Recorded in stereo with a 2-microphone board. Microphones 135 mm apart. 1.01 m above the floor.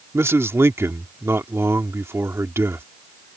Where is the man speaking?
20° right (ahead or behind).